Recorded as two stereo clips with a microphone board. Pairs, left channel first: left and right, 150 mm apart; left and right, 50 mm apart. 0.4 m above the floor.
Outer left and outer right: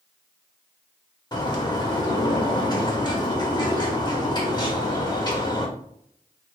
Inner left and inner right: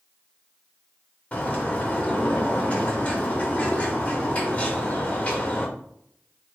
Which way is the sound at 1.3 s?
30° left (ahead or behind).